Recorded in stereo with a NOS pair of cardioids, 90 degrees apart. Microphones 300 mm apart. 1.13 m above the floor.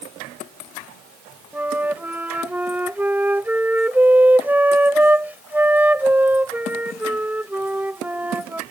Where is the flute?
5° right.